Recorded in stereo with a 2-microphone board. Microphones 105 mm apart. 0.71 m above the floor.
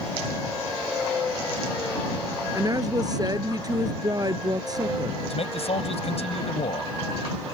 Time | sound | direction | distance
2.5 | a woman speaking | 35° right (ahead or behind) | ?
5.3 | a man speaking | 70° left (ahead or behind) | ?